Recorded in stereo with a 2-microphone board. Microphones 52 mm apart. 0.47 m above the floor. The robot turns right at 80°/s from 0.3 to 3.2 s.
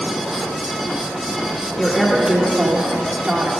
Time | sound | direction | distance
1.8 | a woman speaking | centre (ahead or behind) | 0.9 m